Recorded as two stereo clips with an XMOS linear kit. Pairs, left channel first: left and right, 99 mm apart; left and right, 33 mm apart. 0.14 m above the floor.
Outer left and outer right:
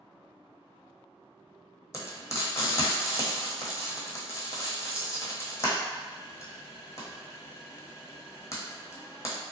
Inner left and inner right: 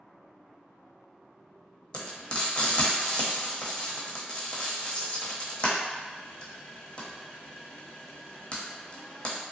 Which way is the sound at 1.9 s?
30° left (ahead or behind).